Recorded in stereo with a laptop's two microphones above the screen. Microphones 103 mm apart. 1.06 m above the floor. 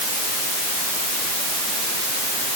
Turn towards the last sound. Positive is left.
No sound to turn to.